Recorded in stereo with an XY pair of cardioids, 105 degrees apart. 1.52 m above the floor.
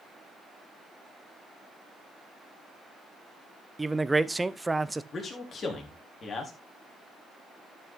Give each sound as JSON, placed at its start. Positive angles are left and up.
{"t": 3.8, "sound": "a man speaking", "azimuth_deg": -10, "distance_m": 0.8}
{"t": 5.1, "sound": "a man speaking", "azimuth_deg": 40, "distance_m": 3.5}